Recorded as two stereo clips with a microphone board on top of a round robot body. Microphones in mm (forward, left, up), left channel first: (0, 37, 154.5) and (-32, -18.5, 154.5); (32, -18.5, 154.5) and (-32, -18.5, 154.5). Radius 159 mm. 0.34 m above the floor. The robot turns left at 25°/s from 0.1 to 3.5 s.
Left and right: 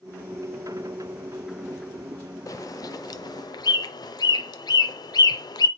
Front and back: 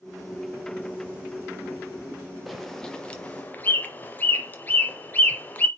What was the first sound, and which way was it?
A bird, 90° left.